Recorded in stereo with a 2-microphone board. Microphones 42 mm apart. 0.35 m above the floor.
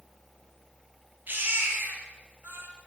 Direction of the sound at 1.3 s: 50° right (ahead or behind).